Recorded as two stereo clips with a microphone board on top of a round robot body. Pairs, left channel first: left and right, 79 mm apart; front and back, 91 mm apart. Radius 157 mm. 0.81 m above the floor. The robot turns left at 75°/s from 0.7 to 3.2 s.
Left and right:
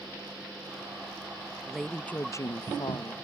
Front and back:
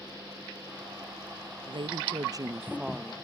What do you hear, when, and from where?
1.7 s a woman speaking: 170° right; by 3.1 s 75° left